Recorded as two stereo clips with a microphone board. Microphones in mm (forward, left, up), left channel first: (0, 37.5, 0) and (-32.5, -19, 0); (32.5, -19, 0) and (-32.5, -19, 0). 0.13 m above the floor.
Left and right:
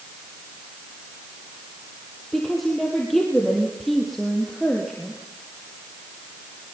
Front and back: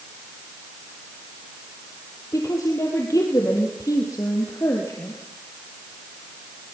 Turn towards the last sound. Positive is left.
turn(degrees=-25)